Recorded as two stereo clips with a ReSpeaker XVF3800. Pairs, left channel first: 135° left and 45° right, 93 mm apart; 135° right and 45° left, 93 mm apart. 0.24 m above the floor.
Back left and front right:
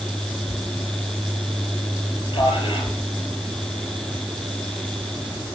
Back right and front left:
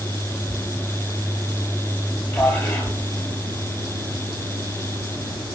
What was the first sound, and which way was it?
A man speaking, 160° left.